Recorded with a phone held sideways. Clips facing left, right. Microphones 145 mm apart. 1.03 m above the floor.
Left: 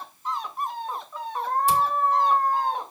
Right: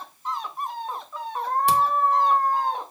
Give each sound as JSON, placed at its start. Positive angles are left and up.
{"t": 1.7, "sound": "a camera shutter", "side_deg": -70, "distance_m": 1.9}